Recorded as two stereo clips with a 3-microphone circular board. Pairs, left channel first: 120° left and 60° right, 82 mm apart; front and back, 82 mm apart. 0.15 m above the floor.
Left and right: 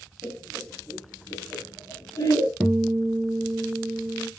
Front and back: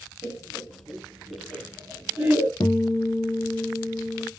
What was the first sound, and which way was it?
Laughter, 175° right.